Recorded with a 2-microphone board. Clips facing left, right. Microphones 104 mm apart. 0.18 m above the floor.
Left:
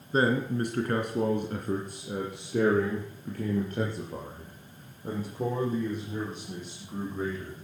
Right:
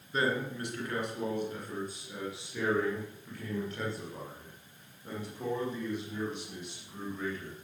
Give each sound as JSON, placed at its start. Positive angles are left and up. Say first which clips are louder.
{"t": 0.1, "sound": "a man speaking", "louder": "left 6 dB", "side_deg": 35, "distance_m": 2.5}